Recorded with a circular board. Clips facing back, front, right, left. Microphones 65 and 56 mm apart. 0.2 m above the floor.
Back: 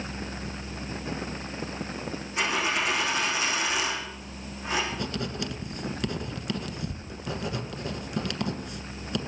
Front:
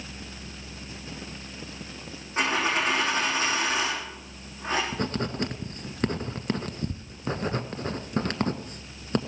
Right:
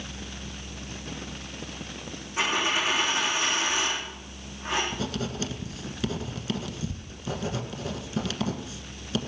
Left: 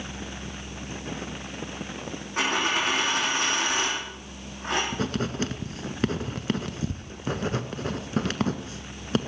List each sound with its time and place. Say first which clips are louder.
2.4 s a dropped coin: front 2 dB, left 1 dB; 55° left, 6 m
4.9 s writing: front 3 dB, left 3 dB; 45° left, 1.2 m